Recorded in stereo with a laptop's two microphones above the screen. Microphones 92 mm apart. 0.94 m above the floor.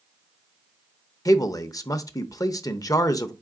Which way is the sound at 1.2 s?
40° left (ahead or behind).